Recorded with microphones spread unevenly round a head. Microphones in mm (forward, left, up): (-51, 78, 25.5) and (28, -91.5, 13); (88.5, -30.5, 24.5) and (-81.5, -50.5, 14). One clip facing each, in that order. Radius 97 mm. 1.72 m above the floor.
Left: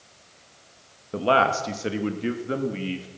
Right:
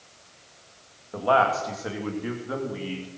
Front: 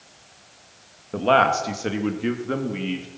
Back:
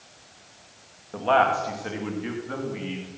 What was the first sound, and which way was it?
A man speaking, 60° left.